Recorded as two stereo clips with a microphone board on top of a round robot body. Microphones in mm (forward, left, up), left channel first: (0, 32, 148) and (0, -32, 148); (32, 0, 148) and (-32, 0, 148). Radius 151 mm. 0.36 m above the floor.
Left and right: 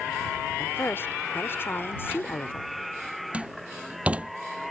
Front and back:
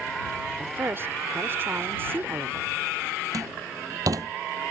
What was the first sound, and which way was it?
A woman speaking, 135° left.